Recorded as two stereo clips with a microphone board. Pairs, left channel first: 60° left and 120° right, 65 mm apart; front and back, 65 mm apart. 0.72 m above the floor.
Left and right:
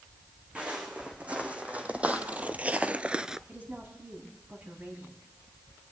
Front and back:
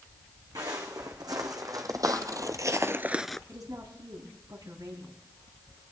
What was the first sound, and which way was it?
Footsteps, 170° left.